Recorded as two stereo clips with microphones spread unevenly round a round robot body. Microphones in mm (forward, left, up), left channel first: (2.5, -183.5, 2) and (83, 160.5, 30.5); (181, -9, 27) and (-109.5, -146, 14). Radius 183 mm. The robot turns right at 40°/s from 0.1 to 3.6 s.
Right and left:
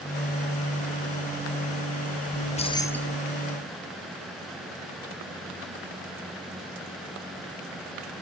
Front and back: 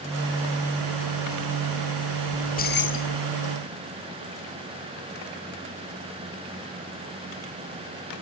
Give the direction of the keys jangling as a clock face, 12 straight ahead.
2 o'clock.